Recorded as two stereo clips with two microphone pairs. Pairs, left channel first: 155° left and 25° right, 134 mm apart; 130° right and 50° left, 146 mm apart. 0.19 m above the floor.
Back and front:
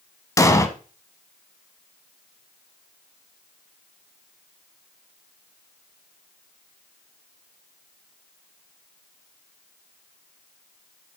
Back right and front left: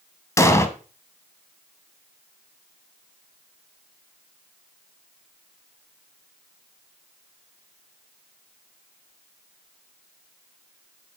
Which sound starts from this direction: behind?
An explosion, at 0.4 s.